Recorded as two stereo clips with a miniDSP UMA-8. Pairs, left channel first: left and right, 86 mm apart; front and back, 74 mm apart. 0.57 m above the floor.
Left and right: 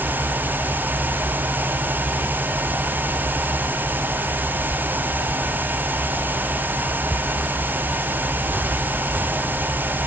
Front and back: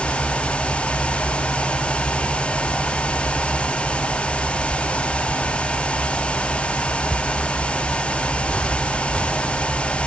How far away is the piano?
I don't hear a piano.